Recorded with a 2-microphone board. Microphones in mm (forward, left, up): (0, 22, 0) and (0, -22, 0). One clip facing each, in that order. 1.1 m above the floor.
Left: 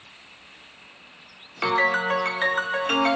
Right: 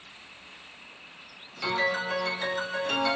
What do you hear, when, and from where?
1.6 s a piano: 50° left (ahead or behind), 0.5 m